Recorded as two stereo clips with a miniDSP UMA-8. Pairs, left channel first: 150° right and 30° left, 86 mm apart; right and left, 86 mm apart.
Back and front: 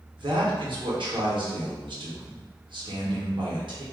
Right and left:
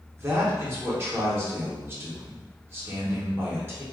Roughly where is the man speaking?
Ahead left.